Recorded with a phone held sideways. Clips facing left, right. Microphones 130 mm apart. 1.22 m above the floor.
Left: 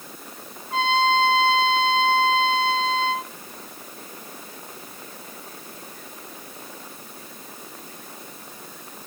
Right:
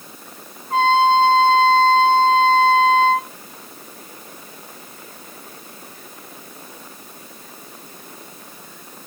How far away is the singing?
I don't hear singing.